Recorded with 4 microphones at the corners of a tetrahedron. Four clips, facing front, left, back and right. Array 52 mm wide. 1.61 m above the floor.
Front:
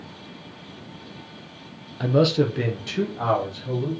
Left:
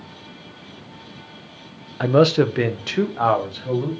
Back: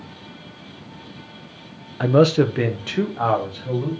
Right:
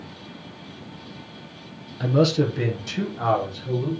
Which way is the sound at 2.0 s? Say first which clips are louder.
Left 5 dB, back 4 dB; 125° left.